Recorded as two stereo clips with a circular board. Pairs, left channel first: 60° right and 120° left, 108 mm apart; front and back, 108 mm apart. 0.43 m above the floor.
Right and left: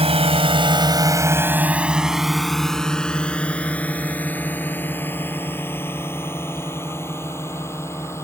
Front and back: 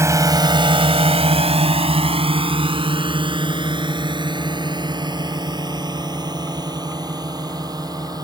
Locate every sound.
0.0 s a drone: 120° left; by 8.2 s 125° right